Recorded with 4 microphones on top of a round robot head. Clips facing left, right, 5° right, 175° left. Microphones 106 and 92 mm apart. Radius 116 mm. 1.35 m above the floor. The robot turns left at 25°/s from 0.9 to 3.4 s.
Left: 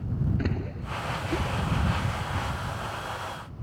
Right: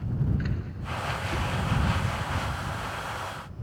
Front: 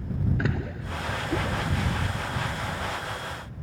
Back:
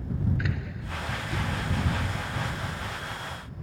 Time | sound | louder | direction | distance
0.4 | a splash | left 3 dB, front 4 dB | 45° left | ?